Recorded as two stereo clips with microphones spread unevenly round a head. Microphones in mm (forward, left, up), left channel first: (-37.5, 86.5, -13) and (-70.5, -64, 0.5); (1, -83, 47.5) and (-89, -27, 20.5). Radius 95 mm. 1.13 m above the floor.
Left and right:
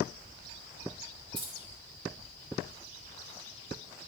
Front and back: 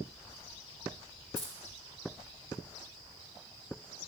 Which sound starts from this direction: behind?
Keys jangling, at 1.4 s.